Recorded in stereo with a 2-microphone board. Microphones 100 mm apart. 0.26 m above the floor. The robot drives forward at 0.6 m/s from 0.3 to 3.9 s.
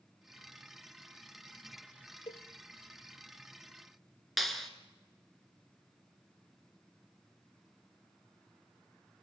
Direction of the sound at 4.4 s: Centre (ahead or behind).